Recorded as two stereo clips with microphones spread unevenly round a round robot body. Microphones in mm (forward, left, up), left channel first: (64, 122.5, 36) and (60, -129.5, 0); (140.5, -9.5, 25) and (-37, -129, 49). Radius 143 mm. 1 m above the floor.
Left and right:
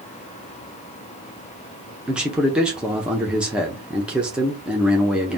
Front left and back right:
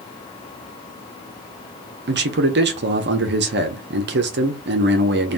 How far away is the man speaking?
About 0.6 m.